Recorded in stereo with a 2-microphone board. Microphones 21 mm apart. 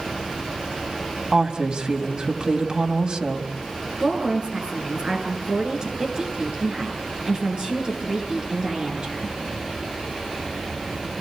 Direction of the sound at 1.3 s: 45° right (ahead or behind).